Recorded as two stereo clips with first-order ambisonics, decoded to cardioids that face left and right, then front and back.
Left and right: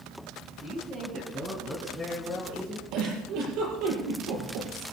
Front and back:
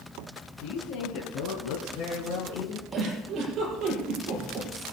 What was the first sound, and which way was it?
A woman speaking, 20° right.